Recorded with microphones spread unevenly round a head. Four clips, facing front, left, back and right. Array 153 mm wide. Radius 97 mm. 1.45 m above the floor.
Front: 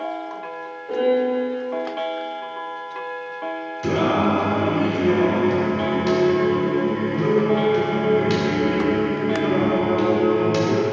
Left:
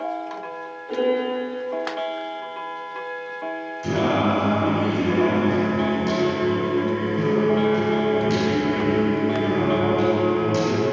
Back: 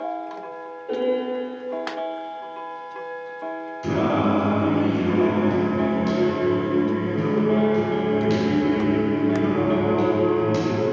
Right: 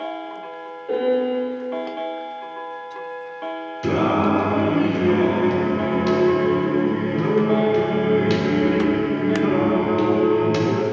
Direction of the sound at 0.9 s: 120° right.